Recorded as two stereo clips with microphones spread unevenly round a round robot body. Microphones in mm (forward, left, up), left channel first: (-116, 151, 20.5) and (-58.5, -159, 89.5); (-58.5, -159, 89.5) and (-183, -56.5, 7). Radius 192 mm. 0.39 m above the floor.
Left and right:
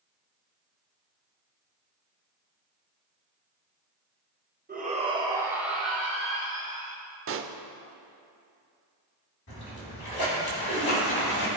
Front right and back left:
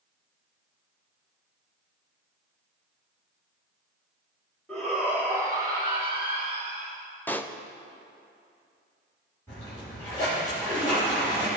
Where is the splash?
60° left, 2.5 m.